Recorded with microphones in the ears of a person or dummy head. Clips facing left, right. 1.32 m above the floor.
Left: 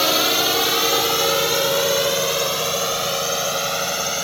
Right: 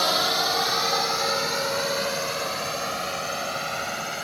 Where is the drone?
40° left (ahead or behind); by 4.2 s 55° left (ahead or behind).